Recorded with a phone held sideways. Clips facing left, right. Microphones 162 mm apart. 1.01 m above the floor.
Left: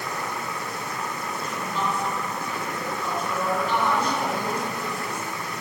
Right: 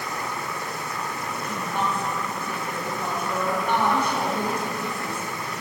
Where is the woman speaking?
55° right (ahead or behind), 7.5 m.